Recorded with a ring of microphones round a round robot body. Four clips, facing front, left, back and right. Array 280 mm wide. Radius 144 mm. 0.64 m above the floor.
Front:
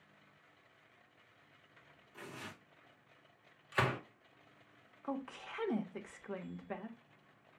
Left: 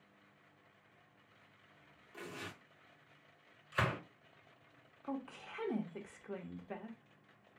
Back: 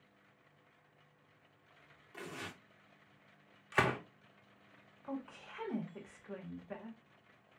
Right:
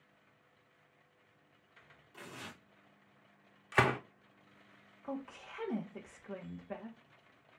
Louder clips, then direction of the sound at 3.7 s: Right 7 dB, back 2 dB; 110° right.